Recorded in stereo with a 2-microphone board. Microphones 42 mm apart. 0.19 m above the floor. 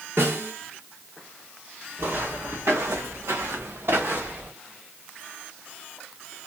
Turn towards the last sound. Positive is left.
turn(degrees=-45)  # may be behind; listen again after turning